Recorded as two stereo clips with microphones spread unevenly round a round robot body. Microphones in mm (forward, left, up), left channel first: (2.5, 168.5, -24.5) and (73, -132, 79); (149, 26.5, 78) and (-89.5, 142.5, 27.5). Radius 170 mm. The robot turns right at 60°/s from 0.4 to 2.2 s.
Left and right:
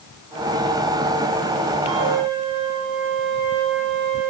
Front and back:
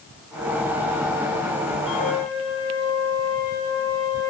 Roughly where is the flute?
Right.